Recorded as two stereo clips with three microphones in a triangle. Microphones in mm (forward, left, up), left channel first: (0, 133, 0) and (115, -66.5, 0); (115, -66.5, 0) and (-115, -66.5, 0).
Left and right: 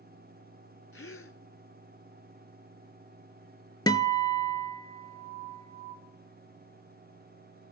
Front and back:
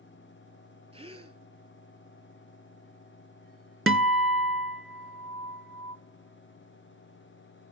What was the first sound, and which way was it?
A gasp, 120° left.